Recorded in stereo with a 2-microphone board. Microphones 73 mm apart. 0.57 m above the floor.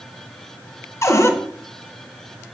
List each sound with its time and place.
1.0 s a cupboard door: 40° left (ahead or behind), 0.5 m